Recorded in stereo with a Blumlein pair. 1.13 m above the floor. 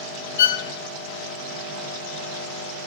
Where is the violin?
60° left, 0.6 m.